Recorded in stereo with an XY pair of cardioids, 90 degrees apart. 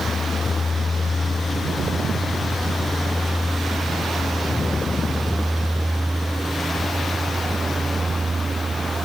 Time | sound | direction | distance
0.0 | a vehicle | 40° left | ?